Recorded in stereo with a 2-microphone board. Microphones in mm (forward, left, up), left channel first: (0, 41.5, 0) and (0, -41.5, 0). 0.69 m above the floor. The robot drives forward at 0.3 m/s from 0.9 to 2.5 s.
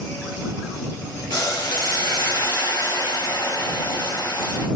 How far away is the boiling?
About 1.9 m.